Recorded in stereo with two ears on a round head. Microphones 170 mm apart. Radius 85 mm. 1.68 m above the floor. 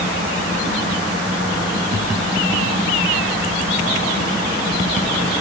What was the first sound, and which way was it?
Only background noise.